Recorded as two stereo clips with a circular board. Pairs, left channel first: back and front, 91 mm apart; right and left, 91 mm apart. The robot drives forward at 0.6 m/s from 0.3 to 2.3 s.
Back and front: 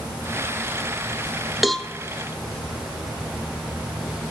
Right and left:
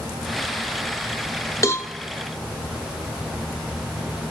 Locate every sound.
1.6 s a cowbell: 85° right, 0.7 m; by 1.9 s 110° right, 0.7 m